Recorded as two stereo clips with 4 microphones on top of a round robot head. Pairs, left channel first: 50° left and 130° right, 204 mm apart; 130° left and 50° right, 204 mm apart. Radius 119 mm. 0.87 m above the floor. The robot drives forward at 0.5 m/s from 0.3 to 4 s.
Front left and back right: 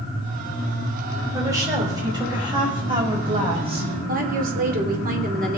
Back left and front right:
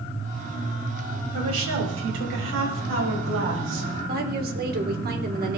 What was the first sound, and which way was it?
A woman speaking, 55° right.